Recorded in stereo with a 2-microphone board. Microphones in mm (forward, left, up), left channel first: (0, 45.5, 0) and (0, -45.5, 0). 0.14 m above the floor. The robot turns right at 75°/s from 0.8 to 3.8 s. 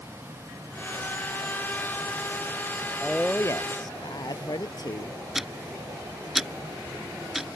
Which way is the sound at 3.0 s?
5° right.